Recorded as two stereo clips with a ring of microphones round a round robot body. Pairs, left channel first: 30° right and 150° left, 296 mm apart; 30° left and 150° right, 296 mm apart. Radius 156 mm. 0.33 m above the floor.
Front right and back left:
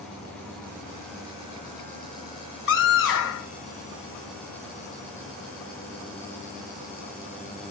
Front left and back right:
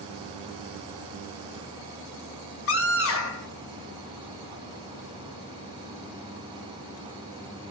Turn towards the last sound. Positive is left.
turn(degrees=5)